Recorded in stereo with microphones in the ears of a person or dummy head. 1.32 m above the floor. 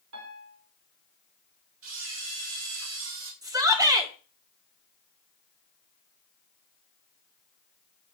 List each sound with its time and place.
0.1 s a piano: 80° right, 1.4 m
1.8 s a camera shutter: 75° right (ahead or behind), 2.5 m
3.4 s a shout: 15° right (ahead or behind), 1.1 m